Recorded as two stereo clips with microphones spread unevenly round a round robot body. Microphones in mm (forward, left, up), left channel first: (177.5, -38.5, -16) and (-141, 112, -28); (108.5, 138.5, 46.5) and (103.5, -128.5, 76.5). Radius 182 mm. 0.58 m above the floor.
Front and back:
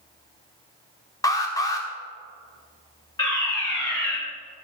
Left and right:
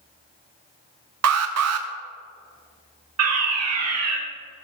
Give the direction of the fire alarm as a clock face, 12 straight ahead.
3 o'clock.